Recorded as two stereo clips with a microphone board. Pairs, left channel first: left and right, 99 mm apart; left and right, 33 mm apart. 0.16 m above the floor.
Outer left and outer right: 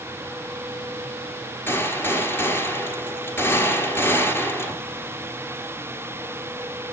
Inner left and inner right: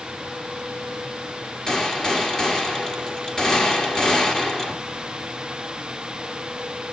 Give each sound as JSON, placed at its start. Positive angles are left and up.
{"t": 1.7, "sound": "a gunshot", "side_deg": 20, "distance_m": 1.5}